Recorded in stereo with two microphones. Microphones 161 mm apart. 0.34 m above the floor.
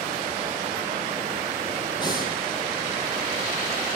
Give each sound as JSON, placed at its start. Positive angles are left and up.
{"t": 2.0, "sound": "breathing", "side_deg": 25, "distance_m": 4.0}